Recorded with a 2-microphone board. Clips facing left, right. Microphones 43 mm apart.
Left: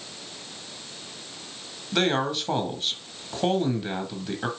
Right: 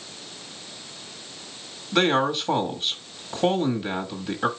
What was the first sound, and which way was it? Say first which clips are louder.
A man speaking: right 3 dB; 10° right (ahead or behind).